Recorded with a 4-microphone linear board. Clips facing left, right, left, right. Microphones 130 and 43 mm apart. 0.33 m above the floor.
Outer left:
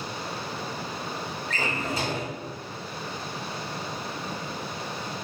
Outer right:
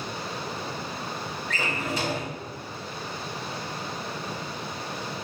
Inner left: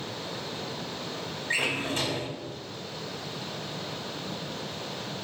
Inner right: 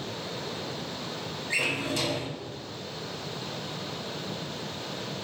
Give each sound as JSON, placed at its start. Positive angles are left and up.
{"t": 1.5, "sound": "a drawer", "side_deg": 35, "distance_m": 1.2}